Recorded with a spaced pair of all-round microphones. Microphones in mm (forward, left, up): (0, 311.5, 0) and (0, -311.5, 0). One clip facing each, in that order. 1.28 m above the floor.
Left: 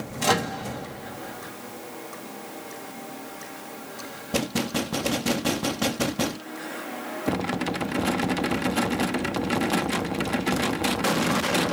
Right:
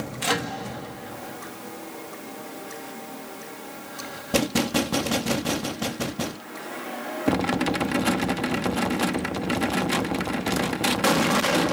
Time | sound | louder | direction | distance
0.2 | a microwave | left 4 dB | 75° left (ahead or behind) | 1.3 m